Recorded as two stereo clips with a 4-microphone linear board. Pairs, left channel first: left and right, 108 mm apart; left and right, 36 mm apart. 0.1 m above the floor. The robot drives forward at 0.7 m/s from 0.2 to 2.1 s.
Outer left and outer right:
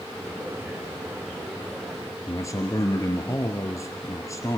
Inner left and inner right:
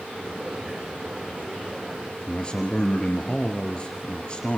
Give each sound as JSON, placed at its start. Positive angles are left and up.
{"t": 2.3, "sound": "a man speaking", "side_deg": 30, "distance_m": 2.0}